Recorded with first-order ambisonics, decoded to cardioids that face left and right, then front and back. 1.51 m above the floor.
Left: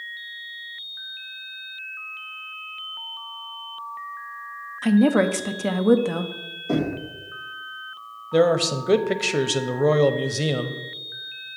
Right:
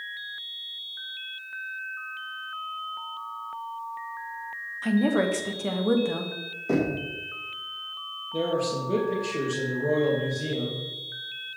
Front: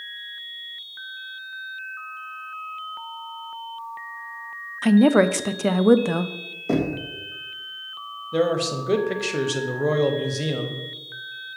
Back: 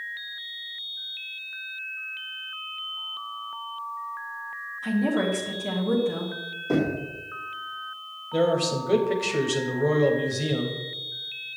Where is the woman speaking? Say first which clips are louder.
Left 5 dB, front 9 dB; 20° left, 0.5 m.